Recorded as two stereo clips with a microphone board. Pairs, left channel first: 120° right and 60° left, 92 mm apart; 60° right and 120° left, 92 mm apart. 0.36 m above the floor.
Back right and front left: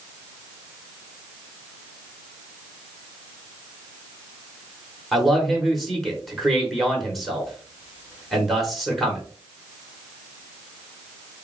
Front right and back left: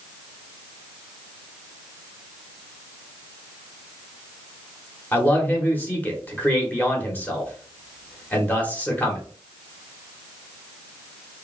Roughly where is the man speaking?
Ahead right.